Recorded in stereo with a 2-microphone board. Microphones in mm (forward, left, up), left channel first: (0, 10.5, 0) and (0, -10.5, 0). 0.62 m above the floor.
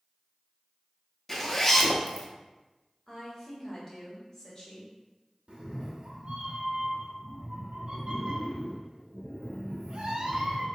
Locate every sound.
1.3 s a zipper: 20° left (ahead or behind), 0.5 m
3.1 s a woman speaking: 30° left (ahead or behind), 1.0 m
5.5 s a cat meowing: 55° right (ahead or behind), 0.5 m